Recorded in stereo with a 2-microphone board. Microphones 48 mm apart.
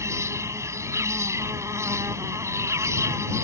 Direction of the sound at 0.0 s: 85° right.